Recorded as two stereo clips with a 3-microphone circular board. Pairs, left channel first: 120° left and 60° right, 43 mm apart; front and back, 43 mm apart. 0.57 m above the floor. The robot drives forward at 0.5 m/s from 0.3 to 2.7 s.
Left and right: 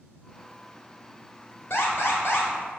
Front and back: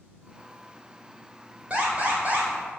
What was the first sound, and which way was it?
An alarm, 125° left.